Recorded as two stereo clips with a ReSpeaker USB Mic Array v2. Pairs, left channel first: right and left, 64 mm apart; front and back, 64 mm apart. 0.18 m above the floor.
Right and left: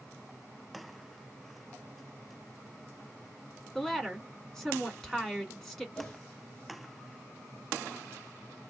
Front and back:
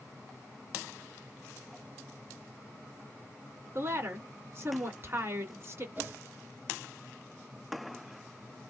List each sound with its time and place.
3.8 s a woman speaking: 170° right, 1.5 m
6.0 s a whoosh: 145° right, 2 m